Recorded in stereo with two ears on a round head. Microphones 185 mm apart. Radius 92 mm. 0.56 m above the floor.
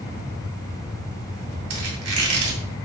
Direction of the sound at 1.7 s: 80° right.